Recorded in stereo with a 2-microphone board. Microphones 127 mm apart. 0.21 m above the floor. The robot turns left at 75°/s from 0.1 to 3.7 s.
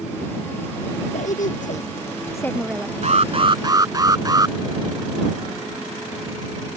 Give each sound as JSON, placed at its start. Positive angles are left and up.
{"t": 1.1, "sound": "a woman speaking", "azimuth_deg": 115}
{"t": 3.0, "sound": "an alarm", "azimuth_deg": -95}